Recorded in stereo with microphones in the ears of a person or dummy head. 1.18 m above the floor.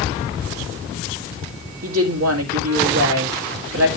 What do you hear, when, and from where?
1.8 s a woman speaking: 85° right, 2 m